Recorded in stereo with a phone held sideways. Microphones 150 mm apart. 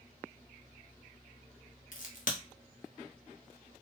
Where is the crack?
60° left (ahead or behind), 0.7 m.